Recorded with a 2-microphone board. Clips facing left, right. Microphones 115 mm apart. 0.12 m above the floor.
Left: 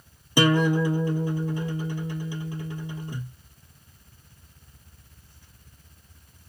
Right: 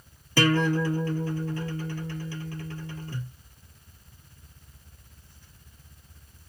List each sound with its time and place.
0.4 s a guitar: 15° left (ahead or behind), 0.7 m